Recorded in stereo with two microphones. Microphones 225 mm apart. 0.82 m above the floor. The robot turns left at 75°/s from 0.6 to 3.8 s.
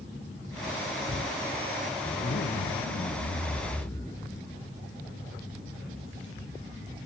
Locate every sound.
2.0 s a zipper: 145° left, 1.6 m; by 4.5 s 15° left, 1.6 m